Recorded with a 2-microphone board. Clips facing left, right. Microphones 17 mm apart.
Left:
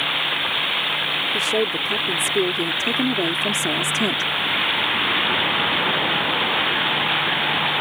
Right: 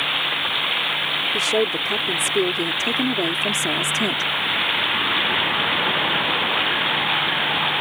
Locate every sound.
1.3 s a woman speaking: 25° right (ahead or behind); by 4.3 s 5° left (ahead or behind)